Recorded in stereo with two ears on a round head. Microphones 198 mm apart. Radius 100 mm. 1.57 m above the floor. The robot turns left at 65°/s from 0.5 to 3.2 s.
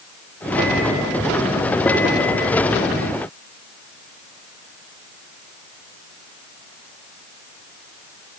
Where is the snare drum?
No snare drum in this recording.